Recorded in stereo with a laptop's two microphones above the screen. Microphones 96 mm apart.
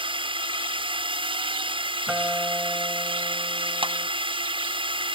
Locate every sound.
0.0 s a drone: 60° right (ahead or behind)
2.1 s a guitar: 10° right (ahead or behind)
3.8 s a clap: 65° right (ahead or behind)